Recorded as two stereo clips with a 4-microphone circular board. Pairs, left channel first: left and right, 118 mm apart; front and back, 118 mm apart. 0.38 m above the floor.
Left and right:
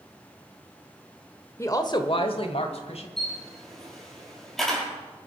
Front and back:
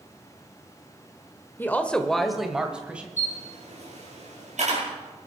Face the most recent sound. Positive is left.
turn(degrees=180)